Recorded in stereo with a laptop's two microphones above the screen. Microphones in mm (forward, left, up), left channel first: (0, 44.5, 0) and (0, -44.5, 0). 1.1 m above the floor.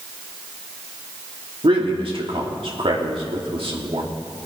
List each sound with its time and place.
1.6 s a man speaking: 75° right (ahead or behind), 2.5 m